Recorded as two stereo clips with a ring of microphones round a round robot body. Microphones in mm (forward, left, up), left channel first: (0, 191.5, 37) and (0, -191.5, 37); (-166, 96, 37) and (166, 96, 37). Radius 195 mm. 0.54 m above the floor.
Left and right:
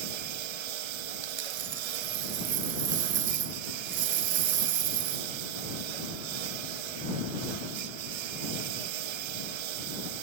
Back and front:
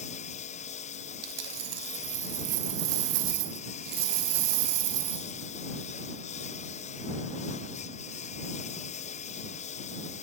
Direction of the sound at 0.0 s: 105° right.